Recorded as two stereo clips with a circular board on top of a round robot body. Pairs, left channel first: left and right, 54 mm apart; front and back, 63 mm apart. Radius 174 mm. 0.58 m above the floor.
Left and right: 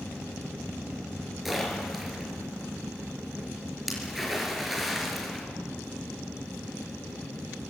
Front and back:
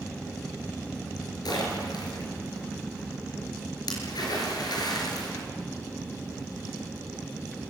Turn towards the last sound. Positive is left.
turn(degrees=0)